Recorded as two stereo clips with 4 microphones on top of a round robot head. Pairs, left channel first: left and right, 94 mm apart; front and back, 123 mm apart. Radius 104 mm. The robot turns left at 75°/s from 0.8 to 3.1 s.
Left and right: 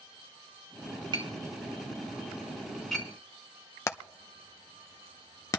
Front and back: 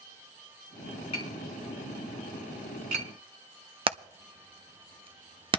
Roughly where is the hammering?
Behind left.